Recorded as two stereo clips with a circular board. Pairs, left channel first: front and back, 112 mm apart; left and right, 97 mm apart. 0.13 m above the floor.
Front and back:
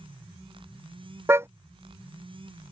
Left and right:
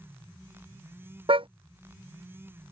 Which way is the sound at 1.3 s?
115° right.